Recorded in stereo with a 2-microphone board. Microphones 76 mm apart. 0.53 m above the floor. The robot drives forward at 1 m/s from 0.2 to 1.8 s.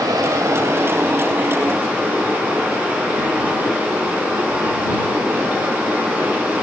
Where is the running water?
55° right (ahead or behind), 1.0 m; by 6.6 s 20° right (ahead or behind), 2.5 m.